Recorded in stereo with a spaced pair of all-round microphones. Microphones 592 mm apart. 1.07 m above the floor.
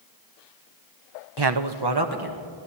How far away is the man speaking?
About 0.6 m.